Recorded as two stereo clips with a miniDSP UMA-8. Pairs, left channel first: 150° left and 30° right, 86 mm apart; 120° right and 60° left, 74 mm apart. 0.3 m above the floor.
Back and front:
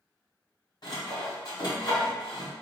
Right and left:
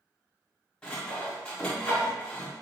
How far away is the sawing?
About 1.9 m.